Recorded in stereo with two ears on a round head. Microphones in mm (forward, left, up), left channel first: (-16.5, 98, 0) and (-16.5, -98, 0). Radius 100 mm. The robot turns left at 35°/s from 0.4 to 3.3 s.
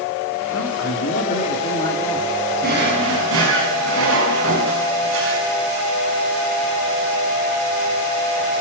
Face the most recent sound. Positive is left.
turn(degrees=-65)  # may be behind; listen again after turning